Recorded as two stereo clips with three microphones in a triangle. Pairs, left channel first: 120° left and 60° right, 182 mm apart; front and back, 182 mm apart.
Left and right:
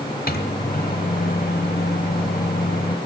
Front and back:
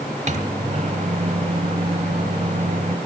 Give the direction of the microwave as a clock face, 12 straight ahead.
7 o'clock.